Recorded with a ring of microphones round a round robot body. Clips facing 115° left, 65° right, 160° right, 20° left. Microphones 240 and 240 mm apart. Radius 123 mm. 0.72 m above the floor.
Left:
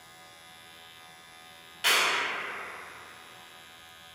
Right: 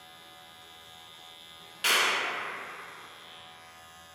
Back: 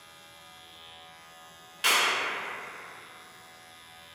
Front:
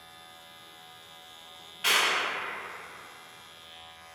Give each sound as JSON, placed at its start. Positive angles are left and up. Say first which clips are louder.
{"t": 1.8, "sound": "a clap", "louder": "even, even", "azimuth_deg": -150, "distance_m": 1.1}